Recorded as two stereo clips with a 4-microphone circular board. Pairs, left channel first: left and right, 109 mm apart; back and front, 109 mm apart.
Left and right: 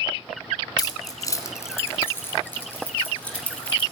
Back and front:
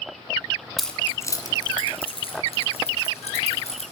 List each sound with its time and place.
0.8 s keys jangling: 90° left, 1.3 m; by 3.8 s 170° left, 4.5 m